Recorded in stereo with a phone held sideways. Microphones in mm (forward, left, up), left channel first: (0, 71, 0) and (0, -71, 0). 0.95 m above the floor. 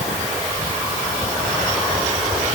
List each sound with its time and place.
Only background noise.